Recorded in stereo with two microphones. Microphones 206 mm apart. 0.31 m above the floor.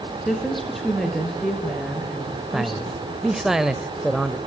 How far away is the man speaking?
About 0.9 m.